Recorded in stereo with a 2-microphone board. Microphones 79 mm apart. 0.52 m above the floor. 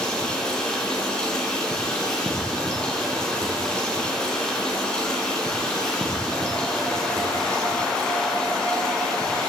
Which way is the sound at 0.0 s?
10° left (ahead or behind).